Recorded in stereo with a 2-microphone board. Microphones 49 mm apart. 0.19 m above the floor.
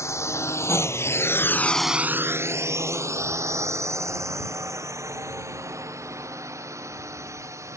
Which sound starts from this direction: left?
A drone, at 0.0 s.